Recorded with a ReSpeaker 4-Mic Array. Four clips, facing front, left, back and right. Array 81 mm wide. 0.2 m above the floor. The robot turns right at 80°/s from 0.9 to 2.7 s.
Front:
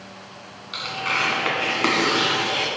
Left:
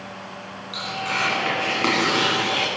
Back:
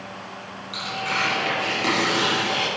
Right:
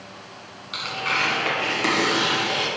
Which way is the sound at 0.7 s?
50° right.